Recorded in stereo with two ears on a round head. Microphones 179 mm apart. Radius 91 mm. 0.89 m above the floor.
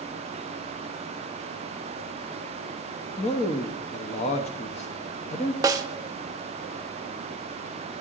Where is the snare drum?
20° right (ahead or behind), 0.7 m.